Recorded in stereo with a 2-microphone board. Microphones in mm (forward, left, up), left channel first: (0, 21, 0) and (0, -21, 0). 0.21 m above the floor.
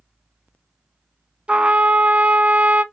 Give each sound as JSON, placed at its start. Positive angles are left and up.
{"t": 1.5, "sound": "a trumpet", "side_deg": -25, "distance_m": 0.5}